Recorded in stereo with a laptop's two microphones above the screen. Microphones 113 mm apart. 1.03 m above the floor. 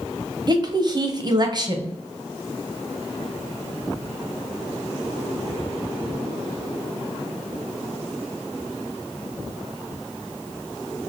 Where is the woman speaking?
35° right (ahead or behind), 0.7 m.